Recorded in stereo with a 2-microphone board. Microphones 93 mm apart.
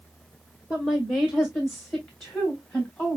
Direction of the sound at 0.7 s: 15° left (ahead or behind).